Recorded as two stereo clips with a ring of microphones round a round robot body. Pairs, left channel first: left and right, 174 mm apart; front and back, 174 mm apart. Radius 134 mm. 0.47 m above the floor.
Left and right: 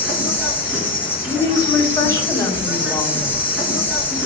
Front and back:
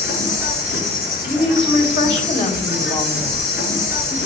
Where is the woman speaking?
20° left, 2.5 m.